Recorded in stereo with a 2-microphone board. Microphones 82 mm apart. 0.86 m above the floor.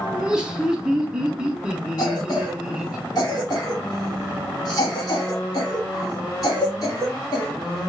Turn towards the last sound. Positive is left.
turn(degrees=45)  # may be behind; listen again after turning